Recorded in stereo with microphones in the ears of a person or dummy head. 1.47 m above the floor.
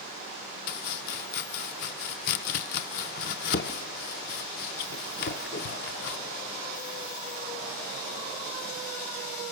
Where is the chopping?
60° left (ahead or behind), 0.7 m.